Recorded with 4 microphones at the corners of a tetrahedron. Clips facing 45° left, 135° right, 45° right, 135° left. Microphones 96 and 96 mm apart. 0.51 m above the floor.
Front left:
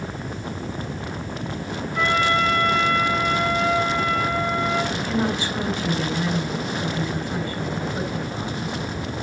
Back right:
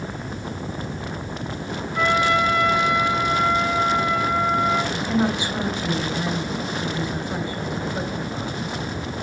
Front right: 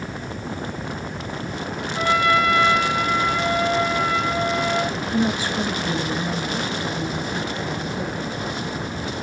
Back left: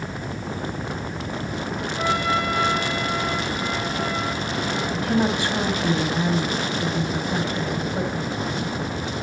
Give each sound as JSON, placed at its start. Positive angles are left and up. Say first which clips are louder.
{"t": 1.9, "sound": "a trumpet", "louder": "back right 1 dB, front right 5 dB", "azimuth_deg": -60, "distance_m": 5.5}
{"t": 4.9, "sound": "a woman speaking", "louder": "back right 1 dB, back left 1 dB", "azimuth_deg": 155, "distance_m": 3.0}